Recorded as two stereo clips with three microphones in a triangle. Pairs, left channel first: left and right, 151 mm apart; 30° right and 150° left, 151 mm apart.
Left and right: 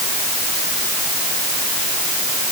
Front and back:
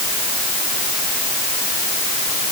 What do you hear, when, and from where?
Only background noise.